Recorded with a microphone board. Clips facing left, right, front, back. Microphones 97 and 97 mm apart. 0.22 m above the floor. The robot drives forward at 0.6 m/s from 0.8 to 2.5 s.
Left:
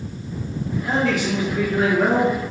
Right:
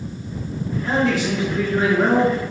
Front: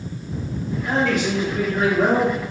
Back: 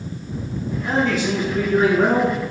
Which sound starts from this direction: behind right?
A man speaking, at 0.8 s.